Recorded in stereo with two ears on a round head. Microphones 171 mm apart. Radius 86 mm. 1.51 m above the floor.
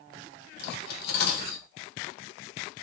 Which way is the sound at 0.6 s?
55° left (ahead or behind).